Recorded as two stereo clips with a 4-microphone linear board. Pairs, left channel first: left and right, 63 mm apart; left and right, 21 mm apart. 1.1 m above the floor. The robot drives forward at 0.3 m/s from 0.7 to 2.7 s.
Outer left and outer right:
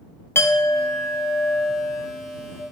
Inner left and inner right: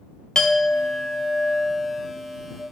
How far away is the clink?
About 0.6 m.